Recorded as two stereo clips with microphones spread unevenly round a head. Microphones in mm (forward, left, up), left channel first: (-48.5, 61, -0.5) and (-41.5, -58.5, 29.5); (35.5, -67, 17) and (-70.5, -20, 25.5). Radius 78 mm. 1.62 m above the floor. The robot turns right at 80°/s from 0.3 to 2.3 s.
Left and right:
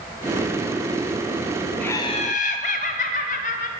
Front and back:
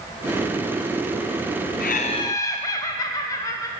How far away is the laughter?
About 0.8 m.